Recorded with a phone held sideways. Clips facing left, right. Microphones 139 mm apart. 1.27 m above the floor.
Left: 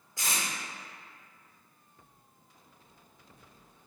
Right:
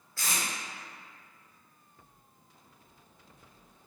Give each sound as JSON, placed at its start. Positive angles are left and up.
{"t": 0.2, "sound": "tape being pulled", "side_deg": 20, "distance_m": 1.0}